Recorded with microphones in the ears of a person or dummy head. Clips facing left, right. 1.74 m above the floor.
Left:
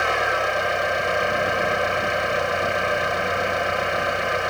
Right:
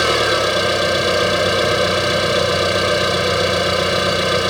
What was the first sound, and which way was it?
An engine running, 55° right (ahead or behind).